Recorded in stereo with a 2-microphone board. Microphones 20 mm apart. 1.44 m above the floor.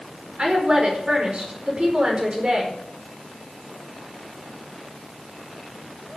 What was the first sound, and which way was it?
A woman speaking, 50° right (ahead or behind).